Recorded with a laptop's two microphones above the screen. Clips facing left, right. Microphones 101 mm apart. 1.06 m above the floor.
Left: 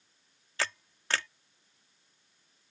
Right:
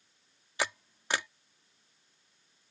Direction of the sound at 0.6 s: 15° right (ahead or behind).